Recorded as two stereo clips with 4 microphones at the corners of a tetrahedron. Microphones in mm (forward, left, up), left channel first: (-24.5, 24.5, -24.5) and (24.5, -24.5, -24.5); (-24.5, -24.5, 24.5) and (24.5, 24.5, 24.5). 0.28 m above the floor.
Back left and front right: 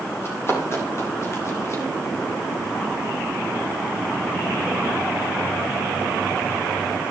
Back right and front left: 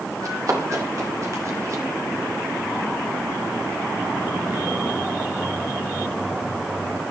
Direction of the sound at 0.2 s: 85° left.